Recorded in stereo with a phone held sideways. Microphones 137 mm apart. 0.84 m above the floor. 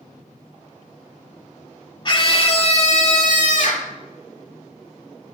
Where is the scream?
35° left (ahead or behind), 2.5 m; by 3.9 s 70° left (ahead or behind), 2.5 m.